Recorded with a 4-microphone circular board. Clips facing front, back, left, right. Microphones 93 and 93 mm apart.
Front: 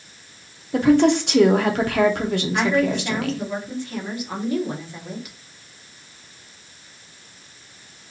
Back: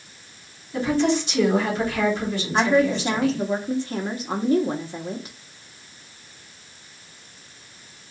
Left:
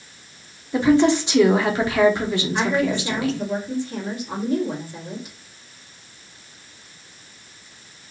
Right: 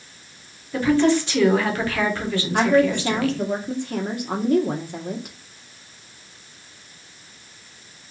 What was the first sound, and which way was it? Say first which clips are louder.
A woman speaking: front 6 dB, left 2 dB; 20° left.